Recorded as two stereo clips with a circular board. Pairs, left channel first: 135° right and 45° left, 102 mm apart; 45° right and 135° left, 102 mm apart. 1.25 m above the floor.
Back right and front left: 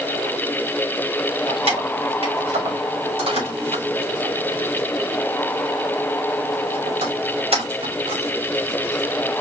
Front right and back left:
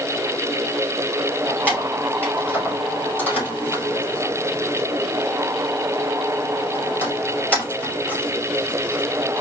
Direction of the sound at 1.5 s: 30° left.